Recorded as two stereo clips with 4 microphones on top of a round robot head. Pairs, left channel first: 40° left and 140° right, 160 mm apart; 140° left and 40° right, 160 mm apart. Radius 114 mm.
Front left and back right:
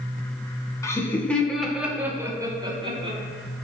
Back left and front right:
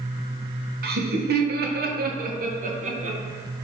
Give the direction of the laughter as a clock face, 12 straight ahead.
1 o'clock.